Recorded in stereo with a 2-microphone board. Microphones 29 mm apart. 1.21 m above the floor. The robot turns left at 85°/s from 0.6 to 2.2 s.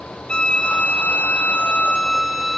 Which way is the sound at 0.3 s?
145° left.